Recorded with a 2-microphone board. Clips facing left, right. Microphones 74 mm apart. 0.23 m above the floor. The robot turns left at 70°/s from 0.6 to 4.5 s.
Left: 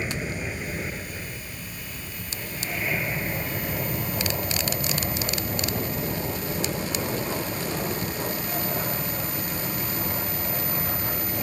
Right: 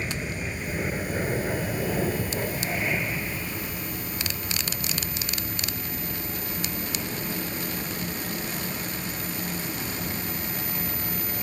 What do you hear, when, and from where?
0.0 s an aircraft: 10° left (ahead or behind); by 11.4 s 40° left (ahead or behind)